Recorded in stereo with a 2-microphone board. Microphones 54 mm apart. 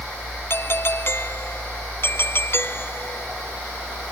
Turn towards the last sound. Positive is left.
turn(degrees=45)  # may be behind; listen again after turning